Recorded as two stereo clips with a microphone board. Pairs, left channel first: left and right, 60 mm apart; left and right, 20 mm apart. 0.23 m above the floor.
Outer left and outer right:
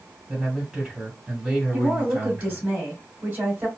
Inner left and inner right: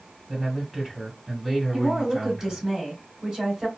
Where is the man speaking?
5° right (ahead or behind), 1.9 m.